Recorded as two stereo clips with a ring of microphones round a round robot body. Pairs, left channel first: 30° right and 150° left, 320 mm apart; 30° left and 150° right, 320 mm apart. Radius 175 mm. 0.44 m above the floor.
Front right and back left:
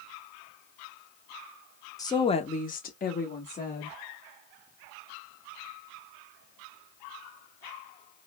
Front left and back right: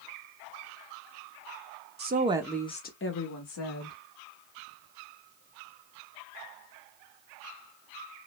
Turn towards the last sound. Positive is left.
turn(degrees=40)